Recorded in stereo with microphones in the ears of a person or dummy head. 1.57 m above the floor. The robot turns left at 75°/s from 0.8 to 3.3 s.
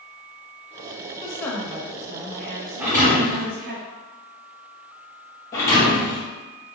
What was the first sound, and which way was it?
A woman speaking, 30° left.